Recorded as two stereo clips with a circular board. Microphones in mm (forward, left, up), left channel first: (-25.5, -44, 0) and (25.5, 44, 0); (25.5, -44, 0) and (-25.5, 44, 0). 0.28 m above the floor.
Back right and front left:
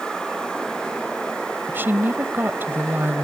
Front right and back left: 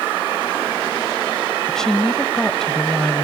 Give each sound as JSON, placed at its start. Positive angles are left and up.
{"t": 1.7, "sound": "a woman speaking", "azimuth_deg": 20, "distance_m": 1.0}